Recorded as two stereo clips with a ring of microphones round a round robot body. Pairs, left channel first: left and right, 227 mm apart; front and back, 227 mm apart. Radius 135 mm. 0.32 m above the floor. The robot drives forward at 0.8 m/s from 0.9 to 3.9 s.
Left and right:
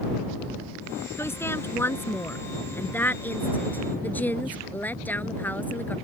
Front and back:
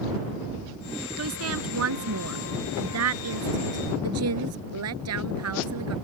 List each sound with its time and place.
1.2 s a woman speaking: 170° left; by 5.9 s 175° left